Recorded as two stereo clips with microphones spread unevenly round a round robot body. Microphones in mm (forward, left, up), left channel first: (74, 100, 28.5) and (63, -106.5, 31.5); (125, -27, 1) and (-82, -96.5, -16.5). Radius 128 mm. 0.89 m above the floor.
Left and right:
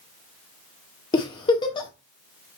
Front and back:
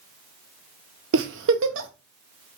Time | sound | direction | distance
1.1 | a giggle | 160° left | 0.5 m